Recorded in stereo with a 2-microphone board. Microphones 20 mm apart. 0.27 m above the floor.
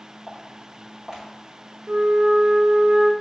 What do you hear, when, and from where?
0.3 s footsteps: 30° right (ahead or behind), 4 m
1.9 s a flute: 75° right (ahead or behind), 1.0 m